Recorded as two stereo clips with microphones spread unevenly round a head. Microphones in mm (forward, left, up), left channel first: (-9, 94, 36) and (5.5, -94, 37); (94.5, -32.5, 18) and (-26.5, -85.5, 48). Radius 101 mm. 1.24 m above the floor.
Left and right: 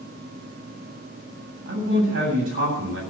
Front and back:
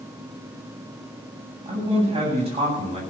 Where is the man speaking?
115° right, 8.5 m.